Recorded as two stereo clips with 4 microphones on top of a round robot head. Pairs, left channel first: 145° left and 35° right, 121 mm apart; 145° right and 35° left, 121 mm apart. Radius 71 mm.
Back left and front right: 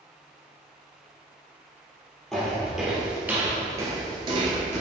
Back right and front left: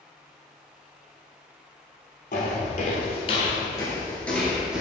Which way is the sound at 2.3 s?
130° right.